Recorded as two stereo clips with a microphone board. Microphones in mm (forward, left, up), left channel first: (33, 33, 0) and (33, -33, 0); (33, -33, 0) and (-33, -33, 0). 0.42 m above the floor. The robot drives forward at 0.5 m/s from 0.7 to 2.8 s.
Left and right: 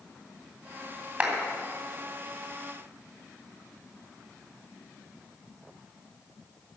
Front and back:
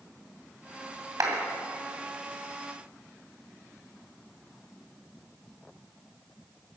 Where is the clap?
160° right, 2.5 m.